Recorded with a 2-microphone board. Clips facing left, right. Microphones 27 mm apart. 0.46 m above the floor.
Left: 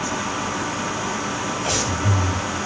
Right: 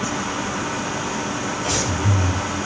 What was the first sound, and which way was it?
Breathing, 10° left (ahead or behind).